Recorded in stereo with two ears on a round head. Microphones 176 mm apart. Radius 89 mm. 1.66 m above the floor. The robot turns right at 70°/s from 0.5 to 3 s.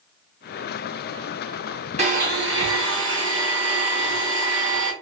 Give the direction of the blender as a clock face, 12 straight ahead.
5 o'clock.